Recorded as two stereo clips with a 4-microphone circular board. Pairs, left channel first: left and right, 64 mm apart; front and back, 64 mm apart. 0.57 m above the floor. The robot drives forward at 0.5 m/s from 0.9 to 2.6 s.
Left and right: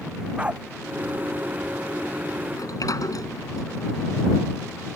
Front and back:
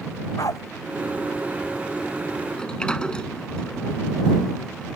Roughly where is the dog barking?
Ahead.